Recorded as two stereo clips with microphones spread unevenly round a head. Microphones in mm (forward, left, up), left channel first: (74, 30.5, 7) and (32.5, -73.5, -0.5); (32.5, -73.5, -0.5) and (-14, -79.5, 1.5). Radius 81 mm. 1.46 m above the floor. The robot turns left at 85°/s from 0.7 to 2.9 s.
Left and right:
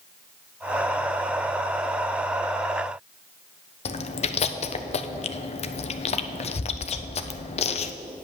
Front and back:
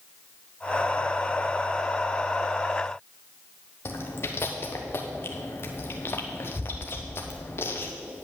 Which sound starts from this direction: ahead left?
Chewing, at 3.9 s.